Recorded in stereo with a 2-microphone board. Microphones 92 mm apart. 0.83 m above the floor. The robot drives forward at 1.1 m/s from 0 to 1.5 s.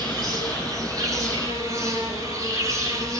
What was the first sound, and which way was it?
An insect, 50° right (ahead or behind).